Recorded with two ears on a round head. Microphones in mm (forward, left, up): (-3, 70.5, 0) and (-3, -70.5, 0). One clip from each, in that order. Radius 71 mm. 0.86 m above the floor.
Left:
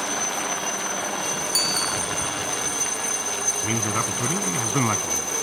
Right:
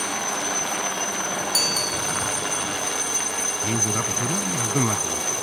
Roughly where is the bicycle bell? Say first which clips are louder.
Right 1 dB; centre.